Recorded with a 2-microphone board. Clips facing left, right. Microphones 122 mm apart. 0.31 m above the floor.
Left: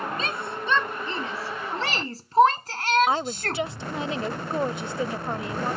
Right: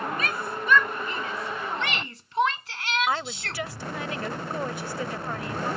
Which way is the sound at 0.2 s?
25° left (ahead or behind).